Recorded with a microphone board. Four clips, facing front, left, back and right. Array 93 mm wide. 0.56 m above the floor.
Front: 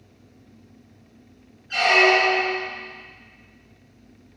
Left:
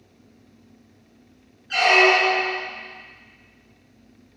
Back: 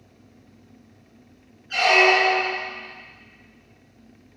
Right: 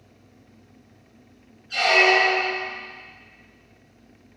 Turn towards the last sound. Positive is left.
turn(degrees=80)